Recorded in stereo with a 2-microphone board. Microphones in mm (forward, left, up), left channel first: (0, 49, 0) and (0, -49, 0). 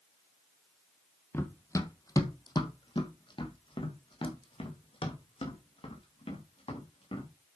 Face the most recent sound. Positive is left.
turn(degrees=75)  # may be behind; listen again after turning